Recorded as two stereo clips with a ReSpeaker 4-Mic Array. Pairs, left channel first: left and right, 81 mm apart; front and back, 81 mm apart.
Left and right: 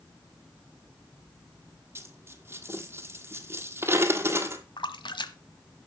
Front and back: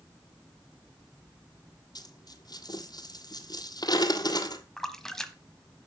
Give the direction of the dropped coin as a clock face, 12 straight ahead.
1 o'clock.